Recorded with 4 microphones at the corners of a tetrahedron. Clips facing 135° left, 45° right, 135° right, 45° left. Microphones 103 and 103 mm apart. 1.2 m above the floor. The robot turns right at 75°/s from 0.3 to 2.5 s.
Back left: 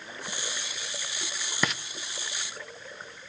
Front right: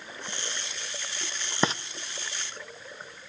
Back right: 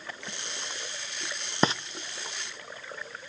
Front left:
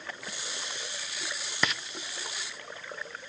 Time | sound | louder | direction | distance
1.6 | frying | front right 4 dB, back right 6 dB | 90° right | 0.6 m